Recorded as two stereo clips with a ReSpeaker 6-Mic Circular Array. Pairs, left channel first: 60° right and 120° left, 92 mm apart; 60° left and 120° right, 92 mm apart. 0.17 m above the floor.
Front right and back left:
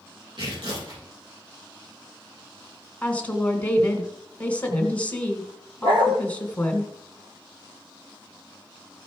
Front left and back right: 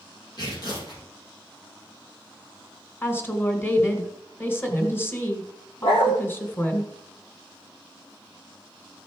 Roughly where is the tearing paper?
Left.